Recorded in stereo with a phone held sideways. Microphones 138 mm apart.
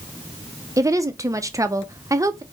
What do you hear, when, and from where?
0.8 s a woman speaking: 25° right (ahead or behind), 0.6 m